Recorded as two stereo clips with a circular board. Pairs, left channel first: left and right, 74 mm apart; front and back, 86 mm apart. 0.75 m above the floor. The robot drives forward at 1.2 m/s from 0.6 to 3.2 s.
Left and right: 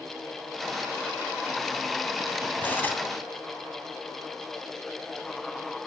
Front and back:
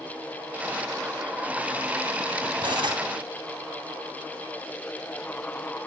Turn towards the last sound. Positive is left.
turn(degrees=160)